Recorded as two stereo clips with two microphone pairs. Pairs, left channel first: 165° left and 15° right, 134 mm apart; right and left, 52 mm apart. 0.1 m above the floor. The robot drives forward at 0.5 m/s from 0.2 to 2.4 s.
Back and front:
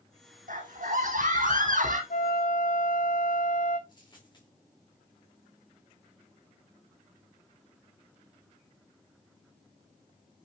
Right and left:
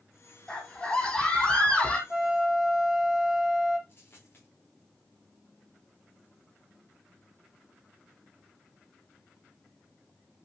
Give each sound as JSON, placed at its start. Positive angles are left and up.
{"t": 0.5, "sound": "a scream", "azimuth_deg": -15, "distance_m": 4.5}
{"t": 2.1, "sound": "a flute", "azimuth_deg": 165, "distance_m": 1.1}
{"t": 3.9, "sound": "a dropped coin", "azimuth_deg": -140, "distance_m": 4.5}